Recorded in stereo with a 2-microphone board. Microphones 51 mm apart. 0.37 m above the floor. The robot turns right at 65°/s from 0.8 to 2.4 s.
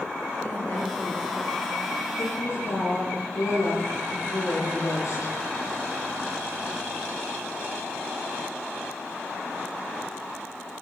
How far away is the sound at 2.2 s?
About 8.5 m.